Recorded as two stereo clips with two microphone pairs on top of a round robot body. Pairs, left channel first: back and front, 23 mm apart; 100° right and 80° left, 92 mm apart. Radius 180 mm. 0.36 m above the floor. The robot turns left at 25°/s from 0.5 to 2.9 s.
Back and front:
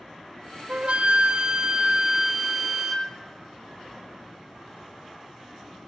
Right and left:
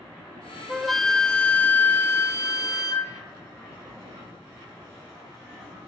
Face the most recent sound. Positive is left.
turn(degrees=-65)